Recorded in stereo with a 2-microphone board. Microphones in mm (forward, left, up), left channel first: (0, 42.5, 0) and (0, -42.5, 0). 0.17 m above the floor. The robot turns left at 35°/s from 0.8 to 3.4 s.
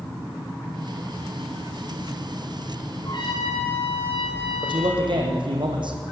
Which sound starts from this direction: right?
A man speaking, at 4.6 s.